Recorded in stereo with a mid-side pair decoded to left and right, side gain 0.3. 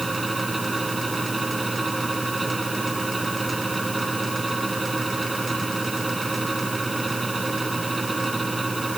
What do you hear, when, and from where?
0.0 s a fan: 25° right